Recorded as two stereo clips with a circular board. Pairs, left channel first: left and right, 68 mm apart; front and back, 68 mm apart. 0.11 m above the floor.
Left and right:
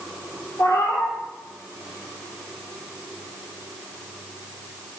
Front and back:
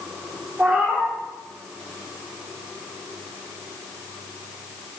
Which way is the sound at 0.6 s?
110° left.